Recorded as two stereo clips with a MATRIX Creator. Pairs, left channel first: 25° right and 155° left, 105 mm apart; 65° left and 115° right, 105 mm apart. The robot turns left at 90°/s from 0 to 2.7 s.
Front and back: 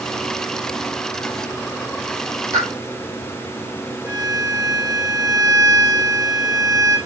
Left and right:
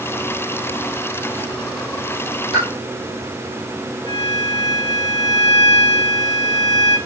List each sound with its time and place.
2.5 s a pop: 100° left, 4 m; by 2.7 s 85° left, 4 m
4.0 s a violin: 95° left, 4 m